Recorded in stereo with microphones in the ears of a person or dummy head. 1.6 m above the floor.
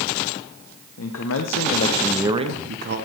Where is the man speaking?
80° left, 1.6 m; by 3.0 s 50° right (ahead or behind), 1.5 m.